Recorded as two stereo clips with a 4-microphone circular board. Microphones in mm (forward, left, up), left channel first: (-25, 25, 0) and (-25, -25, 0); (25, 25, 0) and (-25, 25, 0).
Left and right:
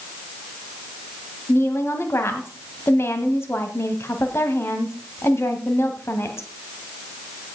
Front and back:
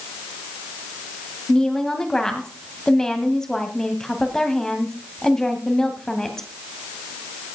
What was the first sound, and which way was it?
A woman speaking, 75° left.